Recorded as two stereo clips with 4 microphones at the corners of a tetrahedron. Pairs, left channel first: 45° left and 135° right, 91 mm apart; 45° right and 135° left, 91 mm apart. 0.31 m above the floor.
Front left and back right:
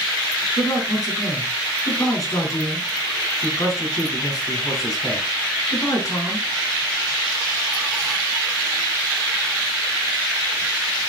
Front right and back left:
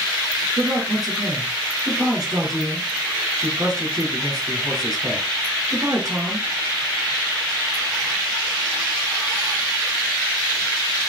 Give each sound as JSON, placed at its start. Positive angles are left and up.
{"t": 0.6, "sound": "a man speaking", "azimuth_deg": 95, "distance_m": 4.0}